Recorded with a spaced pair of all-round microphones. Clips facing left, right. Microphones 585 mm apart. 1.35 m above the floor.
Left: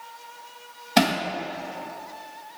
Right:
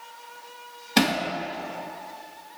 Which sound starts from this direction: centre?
Hammering, at 1.0 s.